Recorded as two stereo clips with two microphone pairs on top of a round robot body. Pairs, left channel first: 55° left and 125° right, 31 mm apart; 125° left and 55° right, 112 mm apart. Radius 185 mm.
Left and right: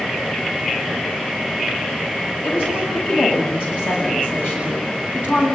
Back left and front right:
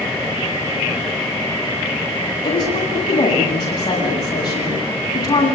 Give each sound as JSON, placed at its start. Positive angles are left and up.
{"t": 2.4, "sound": "a woman speaking", "azimuth_deg": 70, "distance_m": 9.5}